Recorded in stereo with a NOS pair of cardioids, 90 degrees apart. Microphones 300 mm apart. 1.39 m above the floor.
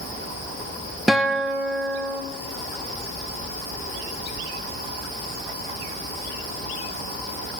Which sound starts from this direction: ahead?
A guitar, at 1.1 s.